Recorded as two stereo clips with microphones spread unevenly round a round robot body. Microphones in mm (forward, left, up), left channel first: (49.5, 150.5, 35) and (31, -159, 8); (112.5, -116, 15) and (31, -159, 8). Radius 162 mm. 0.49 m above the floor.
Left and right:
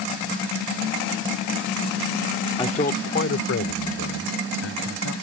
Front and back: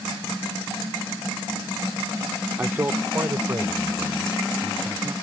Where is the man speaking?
160° left; by 5.1 s 135° left.